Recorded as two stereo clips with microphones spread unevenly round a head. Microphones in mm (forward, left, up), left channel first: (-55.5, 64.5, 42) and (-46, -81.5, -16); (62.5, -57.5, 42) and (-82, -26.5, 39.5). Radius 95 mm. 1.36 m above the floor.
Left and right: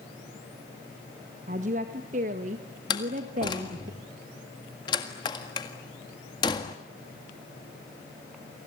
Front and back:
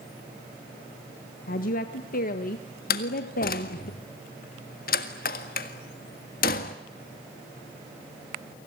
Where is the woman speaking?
40° right, 1.6 m.